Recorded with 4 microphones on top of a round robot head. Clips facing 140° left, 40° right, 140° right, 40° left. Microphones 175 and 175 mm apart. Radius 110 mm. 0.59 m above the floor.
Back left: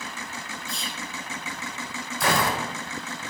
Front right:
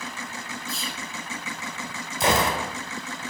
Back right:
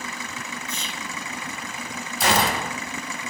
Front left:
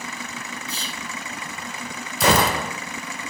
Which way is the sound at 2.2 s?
30° left.